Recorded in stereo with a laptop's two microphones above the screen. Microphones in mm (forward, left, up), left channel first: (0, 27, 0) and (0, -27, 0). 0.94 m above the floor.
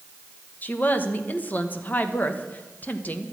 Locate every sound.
0.6 s a woman speaking: 30° left (ahead or behind), 1.0 m